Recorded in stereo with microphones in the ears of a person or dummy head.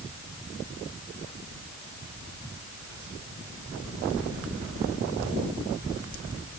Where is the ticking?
I don't hear ticking.